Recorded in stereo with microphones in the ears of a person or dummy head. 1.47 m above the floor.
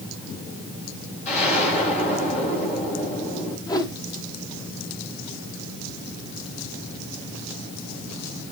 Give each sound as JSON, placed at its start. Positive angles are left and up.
{"t": 1.2, "sound": "an explosion", "side_deg": 45, "distance_m": 9.0}
{"t": 3.7, "sound": "a whoosh", "side_deg": 20, "distance_m": 1.1}